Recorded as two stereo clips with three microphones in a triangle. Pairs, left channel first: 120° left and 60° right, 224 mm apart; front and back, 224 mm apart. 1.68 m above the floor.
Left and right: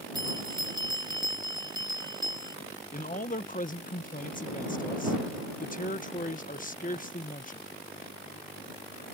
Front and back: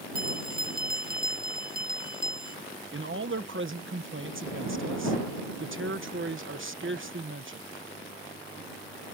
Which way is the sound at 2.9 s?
165° left.